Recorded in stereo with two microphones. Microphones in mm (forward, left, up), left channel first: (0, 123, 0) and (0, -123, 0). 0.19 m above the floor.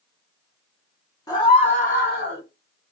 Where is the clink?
I don't hear a clink.